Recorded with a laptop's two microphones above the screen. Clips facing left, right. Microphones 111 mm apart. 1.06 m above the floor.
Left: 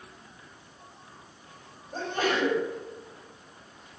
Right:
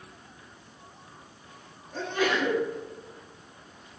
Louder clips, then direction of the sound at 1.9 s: Right 1 dB; 40° left (ahead or behind).